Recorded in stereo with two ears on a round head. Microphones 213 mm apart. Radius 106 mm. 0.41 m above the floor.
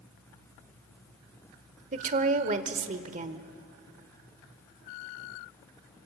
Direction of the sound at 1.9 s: 35° right (ahead or behind).